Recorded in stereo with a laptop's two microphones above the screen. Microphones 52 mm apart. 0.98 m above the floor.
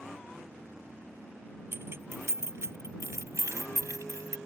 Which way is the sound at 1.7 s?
55° right (ahead or behind).